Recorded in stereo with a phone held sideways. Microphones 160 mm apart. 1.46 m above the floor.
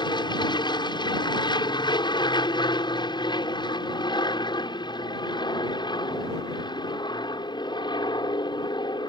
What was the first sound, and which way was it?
An aircraft, 25° left (ahead or behind).